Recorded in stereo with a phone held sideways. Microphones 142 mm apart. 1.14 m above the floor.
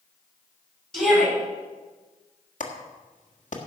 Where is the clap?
60° left (ahead or behind), 1.6 m.